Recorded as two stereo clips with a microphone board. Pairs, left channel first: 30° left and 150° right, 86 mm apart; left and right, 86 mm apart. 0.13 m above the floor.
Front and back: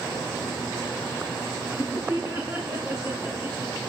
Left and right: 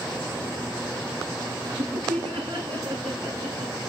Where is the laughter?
80° right, 8.5 m.